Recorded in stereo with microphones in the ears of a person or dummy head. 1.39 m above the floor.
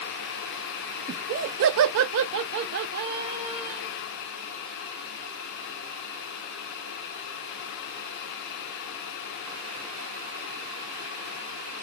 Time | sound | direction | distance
1.1 | laughter | 35° right (ahead or behind) | 0.7 m